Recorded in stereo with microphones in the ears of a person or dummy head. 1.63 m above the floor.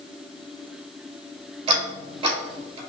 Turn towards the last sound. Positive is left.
turn(degrees=-30)  # may be behind; listen again after turning